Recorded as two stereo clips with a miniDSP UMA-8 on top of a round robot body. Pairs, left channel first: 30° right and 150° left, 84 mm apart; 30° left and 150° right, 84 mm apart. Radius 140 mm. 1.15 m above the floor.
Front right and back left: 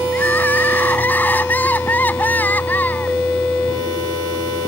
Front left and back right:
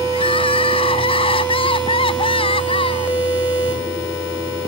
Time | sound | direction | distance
0.1 | crying | 40° left | ?